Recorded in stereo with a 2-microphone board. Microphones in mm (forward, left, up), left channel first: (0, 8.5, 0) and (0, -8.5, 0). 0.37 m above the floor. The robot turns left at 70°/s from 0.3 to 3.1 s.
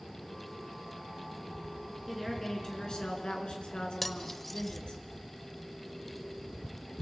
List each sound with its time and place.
2.1 s a woman speaking: 170° right, 5 m; by 5.0 s 120° left, 5 m
4.0 s cutlery clinking: 5° left (ahead or behind), 0.9 m